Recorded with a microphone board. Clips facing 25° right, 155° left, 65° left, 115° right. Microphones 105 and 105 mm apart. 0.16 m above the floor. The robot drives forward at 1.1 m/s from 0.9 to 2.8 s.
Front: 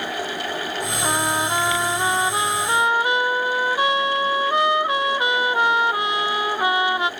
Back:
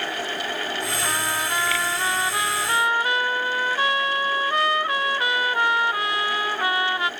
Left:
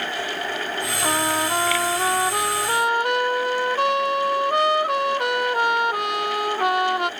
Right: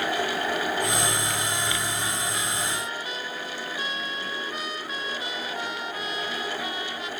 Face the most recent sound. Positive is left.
turn(degrees=50)